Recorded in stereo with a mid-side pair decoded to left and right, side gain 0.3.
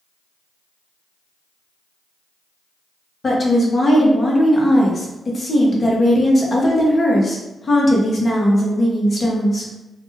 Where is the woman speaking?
45° left, 1.1 m.